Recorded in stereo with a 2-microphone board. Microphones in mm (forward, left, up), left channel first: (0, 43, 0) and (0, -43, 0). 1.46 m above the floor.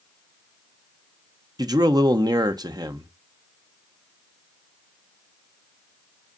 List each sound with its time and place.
1.6 s a man speaking: 50° right (ahead or behind), 1.0 m